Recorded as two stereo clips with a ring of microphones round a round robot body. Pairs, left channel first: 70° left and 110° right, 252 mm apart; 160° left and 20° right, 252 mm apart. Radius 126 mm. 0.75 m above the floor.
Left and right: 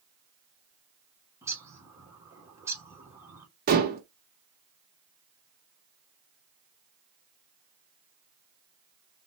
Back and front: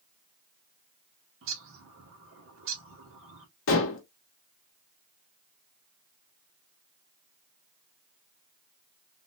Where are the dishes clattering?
165° right, 0.8 m.